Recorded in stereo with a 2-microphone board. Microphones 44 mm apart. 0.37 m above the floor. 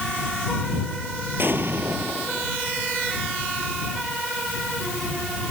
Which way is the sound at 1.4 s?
50° right (ahead or behind).